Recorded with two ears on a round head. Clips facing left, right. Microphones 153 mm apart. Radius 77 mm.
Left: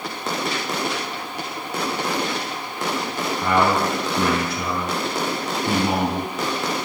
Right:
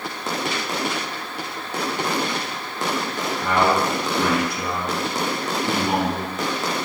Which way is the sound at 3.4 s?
60° left (ahead or behind).